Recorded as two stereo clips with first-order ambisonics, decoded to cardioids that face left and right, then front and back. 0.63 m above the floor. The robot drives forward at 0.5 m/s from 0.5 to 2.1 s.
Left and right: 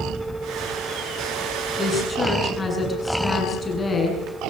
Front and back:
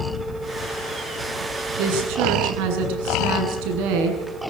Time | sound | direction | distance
1.8 | a woman speaking | 170° left | 7.5 m